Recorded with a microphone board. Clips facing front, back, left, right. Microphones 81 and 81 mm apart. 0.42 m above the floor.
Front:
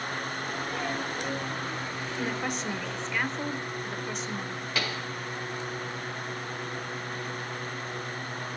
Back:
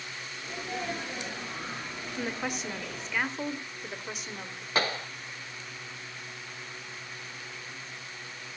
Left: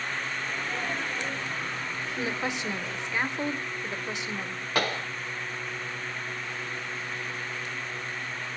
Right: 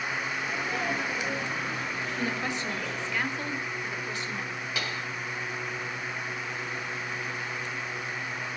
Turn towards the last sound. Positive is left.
turn(degrees=125)